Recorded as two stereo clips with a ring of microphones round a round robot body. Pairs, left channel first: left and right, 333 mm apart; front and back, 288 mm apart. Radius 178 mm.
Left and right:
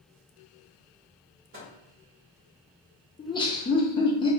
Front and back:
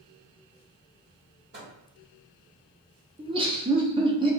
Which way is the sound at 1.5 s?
135° right.